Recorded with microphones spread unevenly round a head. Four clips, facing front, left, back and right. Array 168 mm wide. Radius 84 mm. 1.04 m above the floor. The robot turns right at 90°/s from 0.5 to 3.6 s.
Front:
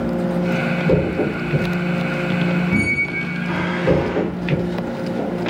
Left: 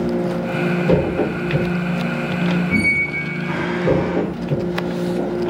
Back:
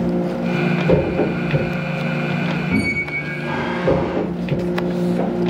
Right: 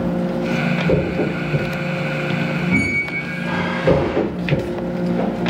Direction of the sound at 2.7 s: 145° left.